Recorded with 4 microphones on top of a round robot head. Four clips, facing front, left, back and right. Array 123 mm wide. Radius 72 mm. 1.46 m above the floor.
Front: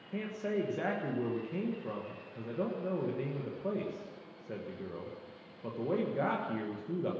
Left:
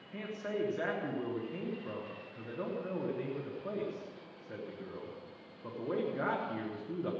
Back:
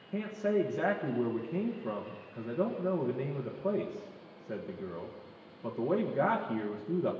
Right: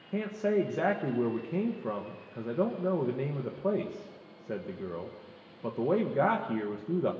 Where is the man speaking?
95° right, 1.4 m.